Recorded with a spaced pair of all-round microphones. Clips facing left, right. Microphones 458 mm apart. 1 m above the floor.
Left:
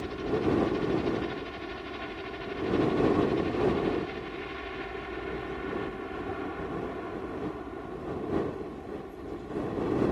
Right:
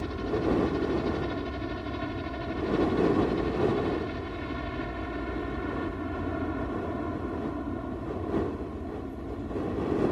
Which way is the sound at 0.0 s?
60° right (ahead or behind).